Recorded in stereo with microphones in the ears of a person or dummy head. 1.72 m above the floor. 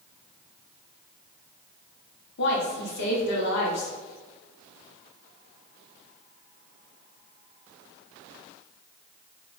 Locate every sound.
2.4 s a woman speaking: 65° left (ahead or behind), 0.9 m